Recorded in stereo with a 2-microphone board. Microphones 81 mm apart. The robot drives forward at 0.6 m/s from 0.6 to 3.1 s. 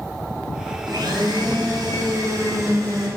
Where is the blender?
70° right (ahead or behind), 2 m; by 3.1 s 45° right (ahead or behind), 3 m.